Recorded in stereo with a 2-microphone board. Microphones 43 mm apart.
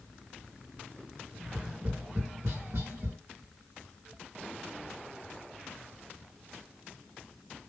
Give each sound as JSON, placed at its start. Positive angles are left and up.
{"t": 1.4, "sound": "tapping", "side_deg": -70, "distance_m": 2.5}